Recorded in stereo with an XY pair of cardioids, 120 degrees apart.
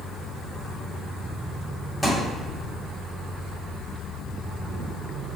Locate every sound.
2.0 s a thud: 10° left, 1.9 m